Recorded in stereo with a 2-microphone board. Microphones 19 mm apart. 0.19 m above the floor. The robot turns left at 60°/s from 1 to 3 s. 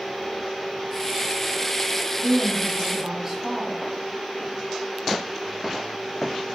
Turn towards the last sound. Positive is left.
turn(degrees=-60)